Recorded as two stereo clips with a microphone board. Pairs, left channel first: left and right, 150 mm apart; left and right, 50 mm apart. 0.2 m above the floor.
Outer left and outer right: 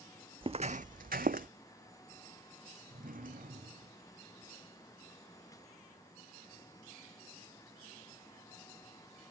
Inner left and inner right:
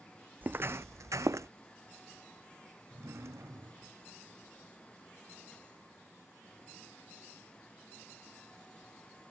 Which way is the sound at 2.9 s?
65° right (ahead or behind).